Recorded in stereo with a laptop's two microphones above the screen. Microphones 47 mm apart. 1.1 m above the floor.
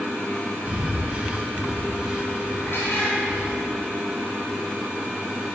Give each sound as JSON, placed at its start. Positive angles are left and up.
{"t": 0.7, "sound": "breathing", "side_deg": -20, "distance_m": 1.6}
{"t": 2.6, "sound": "a cat meowing", "side_deg": 50, "distance_m": 4.5}